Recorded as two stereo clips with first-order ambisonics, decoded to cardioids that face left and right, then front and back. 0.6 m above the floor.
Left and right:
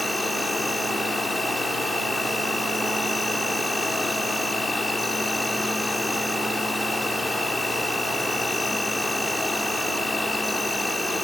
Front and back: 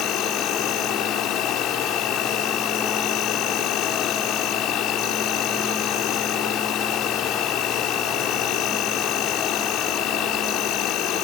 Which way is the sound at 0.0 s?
5° left.